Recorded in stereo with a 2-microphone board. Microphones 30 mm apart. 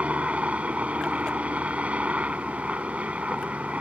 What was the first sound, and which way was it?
A helicopter, 45° right (ahead or behind).